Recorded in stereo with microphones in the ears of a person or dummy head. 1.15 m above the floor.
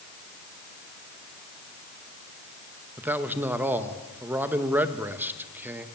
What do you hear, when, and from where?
3.0 s a man speaking: 15° right (ahead or behind), 1.5 m